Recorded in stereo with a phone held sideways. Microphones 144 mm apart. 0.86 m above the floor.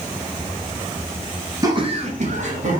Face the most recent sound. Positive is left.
turn(degrees=-55)  # may be behind; listen again after turning